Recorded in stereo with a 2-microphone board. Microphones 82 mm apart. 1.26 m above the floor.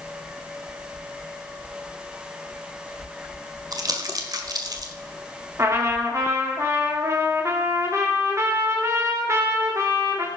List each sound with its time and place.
3.7 s crumpling: 50° right (ahead or behind), 1.6 m
5.6 s a trumpet: 35° right (ahead or behind), 2.5 m